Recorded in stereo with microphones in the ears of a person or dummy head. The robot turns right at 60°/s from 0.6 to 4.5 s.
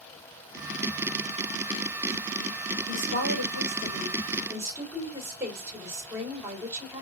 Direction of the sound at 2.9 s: 115° right.